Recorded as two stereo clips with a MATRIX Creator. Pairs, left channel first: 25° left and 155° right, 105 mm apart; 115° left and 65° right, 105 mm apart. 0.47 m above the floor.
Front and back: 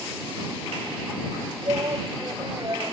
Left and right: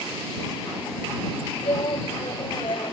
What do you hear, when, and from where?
1.6 s a shout: 150° left